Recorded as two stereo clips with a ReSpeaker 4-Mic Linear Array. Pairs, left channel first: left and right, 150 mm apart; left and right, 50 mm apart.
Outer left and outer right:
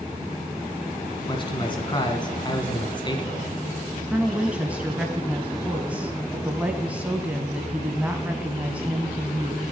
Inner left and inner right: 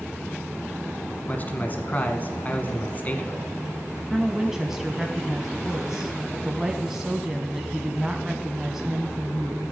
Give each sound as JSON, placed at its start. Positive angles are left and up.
{"t": 1.3, "sound": "a man speaking", "side_deg": 30, "distance_m": 1.4}
{"t": 4.1, "sound": "a woman speaking", "side_deg": -10, "distance_m": 1.0}